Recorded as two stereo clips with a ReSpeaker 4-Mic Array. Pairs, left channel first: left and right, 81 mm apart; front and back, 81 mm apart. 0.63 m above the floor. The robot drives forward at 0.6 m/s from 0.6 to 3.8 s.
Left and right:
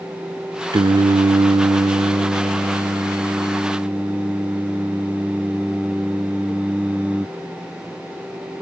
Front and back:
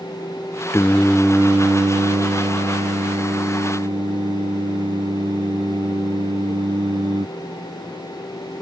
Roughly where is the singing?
Ahead right.